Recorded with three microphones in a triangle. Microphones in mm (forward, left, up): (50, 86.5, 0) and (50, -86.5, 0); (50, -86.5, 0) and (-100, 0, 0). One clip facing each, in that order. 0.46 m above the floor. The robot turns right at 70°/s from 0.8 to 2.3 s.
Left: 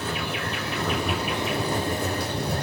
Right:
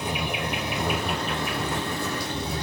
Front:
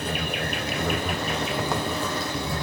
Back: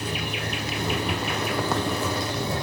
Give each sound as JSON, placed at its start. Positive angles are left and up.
{"t": 0.0, "sound": "an insect", "azimuth_deg": -20, "distance_m": 3.5}